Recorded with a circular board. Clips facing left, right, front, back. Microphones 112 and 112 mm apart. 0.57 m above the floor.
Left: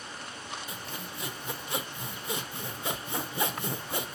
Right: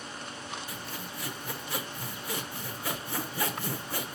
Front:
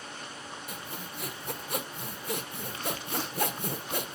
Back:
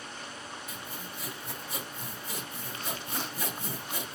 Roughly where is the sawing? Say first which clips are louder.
Even, front 1 dB; ahead left.